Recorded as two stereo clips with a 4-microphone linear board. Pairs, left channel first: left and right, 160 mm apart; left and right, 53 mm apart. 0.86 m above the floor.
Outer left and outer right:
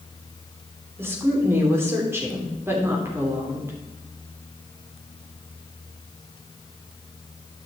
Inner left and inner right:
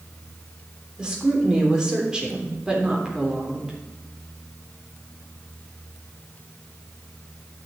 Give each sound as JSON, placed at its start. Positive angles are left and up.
{"t": 1.0, "sound": "a woman speaking", "side_deg": -15, "distance_m": 3.0}